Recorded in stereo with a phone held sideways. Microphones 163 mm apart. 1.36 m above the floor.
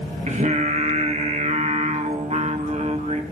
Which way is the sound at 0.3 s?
50° right (ahead or behind).